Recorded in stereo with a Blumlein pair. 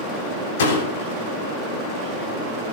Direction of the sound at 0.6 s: 60° left.